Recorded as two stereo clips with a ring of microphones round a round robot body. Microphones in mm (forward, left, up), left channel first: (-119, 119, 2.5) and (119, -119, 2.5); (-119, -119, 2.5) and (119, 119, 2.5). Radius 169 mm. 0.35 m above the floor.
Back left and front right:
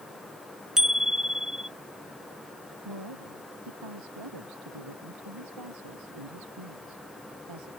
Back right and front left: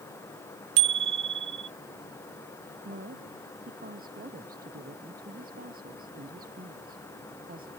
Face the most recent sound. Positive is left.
turn(degrees=-20)